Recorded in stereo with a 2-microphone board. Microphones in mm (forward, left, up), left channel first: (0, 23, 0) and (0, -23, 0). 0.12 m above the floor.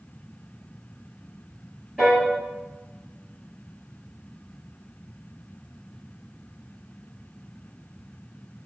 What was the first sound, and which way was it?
A piano, 5° right (ahead or behind).